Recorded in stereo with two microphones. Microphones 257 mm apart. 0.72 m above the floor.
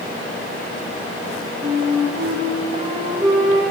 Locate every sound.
1.6 s a flute: 25° right (ahead or behind), 4 m